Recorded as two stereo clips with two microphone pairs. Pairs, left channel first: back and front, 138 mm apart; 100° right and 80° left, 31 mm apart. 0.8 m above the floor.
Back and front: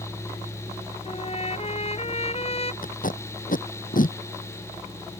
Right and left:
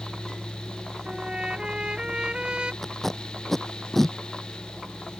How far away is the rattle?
I don't hear a rattle.